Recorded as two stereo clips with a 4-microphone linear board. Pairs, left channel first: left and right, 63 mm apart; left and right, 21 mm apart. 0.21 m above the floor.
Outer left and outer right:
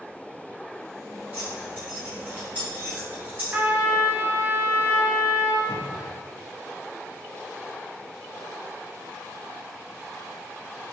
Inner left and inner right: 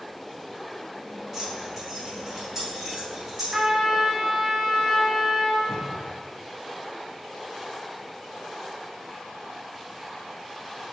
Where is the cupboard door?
35° right (ahead or behind), 1.1 m.